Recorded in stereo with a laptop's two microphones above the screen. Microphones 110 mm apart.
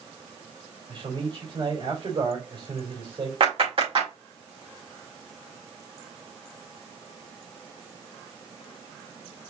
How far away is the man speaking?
About 3 m.